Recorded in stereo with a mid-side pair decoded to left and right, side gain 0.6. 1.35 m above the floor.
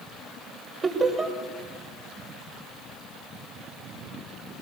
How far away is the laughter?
About 6 m.